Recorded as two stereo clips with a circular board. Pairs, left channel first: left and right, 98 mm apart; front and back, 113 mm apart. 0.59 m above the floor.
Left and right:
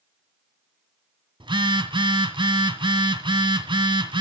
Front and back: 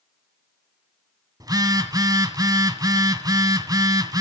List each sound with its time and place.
1.4 s a phone buzzing: 125° right, 1.8 m